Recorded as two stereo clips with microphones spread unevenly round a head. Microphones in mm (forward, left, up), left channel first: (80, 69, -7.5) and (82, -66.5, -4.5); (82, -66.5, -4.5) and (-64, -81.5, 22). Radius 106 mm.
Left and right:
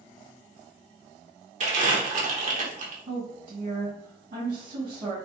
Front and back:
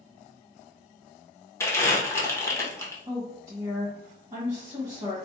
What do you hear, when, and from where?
1.6 s crumpling: 60° right, 1.2 m
3.1 s a woman speaking: 120° right, 1.5 m